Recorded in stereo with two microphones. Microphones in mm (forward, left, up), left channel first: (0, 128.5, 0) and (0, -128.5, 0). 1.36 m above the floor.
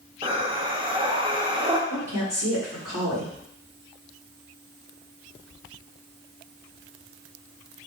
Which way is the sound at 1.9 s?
80° right.